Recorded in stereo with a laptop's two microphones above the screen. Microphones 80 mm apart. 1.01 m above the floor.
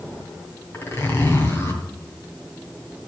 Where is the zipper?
35° left (ahead or behind), 2.5 m.